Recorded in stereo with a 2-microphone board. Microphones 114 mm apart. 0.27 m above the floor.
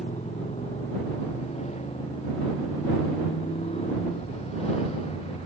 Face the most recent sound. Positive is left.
turn(degrees=65)  # may be behind; listen again after turning